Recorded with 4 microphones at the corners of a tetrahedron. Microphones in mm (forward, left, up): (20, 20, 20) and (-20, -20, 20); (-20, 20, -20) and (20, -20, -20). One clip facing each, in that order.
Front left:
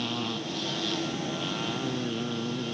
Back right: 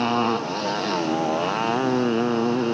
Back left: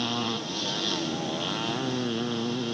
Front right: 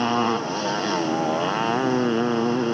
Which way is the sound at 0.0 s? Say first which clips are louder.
Back right 11 dB, front right 9 dB; 95° right.